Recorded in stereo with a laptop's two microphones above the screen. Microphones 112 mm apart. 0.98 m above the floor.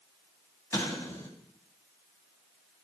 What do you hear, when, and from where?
0.7 s an explosion: 25° left (ahead or behind), 3 m